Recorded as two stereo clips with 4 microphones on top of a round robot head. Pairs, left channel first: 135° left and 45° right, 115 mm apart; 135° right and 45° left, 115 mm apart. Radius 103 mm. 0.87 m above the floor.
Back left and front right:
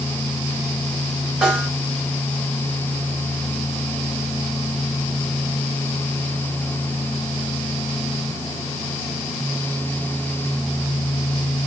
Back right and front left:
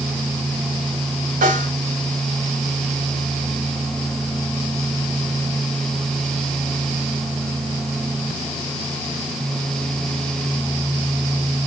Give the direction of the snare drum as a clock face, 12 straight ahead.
11 o'clock.